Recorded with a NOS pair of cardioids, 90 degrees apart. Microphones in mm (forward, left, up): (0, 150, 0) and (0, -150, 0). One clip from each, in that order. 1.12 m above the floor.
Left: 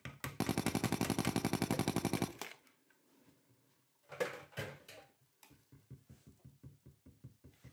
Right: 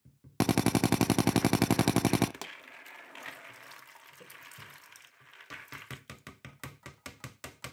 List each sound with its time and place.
0.4 s a drill: 40° right, 0.5 m
2.4 s a pop: 25° right, 1.4 m